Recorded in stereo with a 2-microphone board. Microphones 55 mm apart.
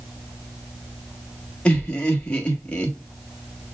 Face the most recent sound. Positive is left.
turn(degrees=20)  # may be behind; listen again after turning